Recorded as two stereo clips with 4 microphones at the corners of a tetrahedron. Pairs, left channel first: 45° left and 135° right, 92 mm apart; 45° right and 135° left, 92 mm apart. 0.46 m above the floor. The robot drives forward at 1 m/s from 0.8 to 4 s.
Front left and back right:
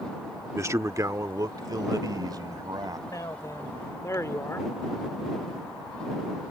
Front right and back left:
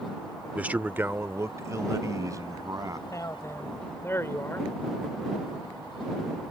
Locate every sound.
0.6 s a man speaking: 165° right; by 3.0 s 175° right
3.1 s a man speaking: straight ahead; by 4.7 s 5° left